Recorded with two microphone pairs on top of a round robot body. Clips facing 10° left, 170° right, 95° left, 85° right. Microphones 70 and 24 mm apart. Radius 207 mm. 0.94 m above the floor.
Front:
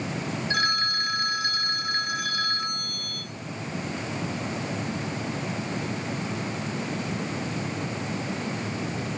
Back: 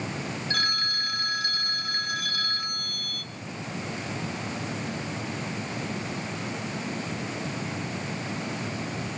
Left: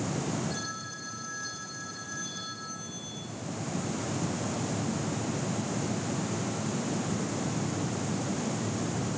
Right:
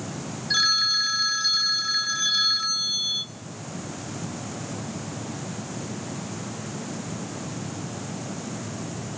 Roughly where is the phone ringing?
Ahead right.